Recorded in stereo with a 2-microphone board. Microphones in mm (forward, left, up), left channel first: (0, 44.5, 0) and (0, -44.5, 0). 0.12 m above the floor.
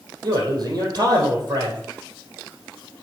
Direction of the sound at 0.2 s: 50° right (ahead or behind).